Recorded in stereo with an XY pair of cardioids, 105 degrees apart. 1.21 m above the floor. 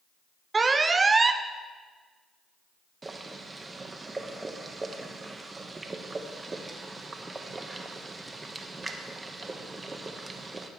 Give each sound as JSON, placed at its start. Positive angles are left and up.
{"t": 0.5, "sound": "an alarm", "azimuth_deg": -25, "distance_m": 0.6}
{"t": 3.0, "sound": "boiling", "azimuth_deg": -25, "distance_m": 1.1}